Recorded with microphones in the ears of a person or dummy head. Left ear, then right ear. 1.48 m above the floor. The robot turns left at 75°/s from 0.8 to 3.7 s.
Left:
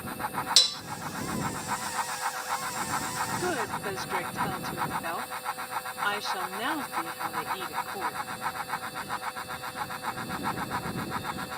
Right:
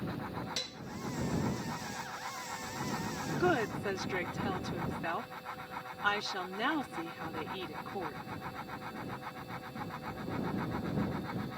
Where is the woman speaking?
15° right (ahead or behind); by 8.2 s 5° left (ahead or behind).